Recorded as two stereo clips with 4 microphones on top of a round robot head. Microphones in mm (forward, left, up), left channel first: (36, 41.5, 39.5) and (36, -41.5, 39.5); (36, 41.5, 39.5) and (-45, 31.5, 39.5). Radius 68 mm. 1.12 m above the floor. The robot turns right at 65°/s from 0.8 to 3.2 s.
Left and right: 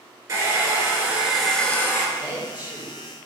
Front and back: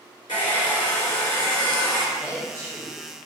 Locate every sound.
0.3 s a hair dryer: 40° right, 3 m; by 2.1 s 45° left, 3 m
2.2 s a woman speaking: 110° left, 3.5 m; by 3.0 s 165° left, 3.5 m